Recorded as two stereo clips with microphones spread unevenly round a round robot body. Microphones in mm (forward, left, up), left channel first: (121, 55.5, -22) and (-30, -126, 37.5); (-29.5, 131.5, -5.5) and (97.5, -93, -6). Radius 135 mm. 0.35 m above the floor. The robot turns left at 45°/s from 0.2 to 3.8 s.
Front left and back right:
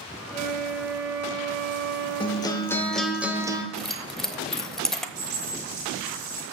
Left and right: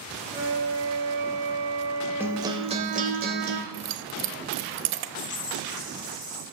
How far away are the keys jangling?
About 0.8 m.